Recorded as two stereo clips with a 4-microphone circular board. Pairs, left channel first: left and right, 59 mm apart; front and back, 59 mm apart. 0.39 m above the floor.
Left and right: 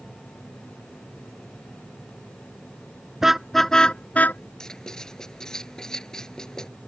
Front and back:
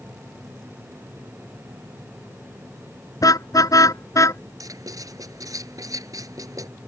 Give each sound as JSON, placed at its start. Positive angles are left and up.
{"t": 3.2, "sound": "a car horn", "azimuth_deg": -5}
{"t": 4.6, "sound": "writing", "azimuth_deg": 170}